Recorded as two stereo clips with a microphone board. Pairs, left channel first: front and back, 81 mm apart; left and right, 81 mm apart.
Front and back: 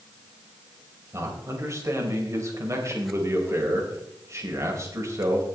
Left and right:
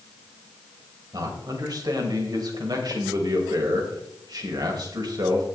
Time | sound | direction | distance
1.1 | a man speaking | 130° right | 3.5 m